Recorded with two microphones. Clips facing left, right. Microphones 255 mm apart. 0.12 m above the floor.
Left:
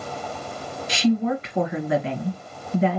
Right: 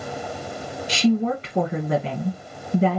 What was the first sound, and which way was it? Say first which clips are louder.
A woman speaking: right 1 dB; 35° right (ahead or behind).